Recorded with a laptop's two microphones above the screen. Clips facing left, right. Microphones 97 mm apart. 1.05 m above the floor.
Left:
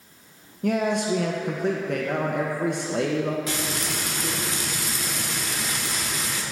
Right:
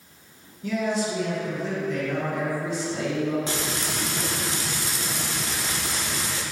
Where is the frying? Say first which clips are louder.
Even; 30° right (ahead or behind), 0.9 m.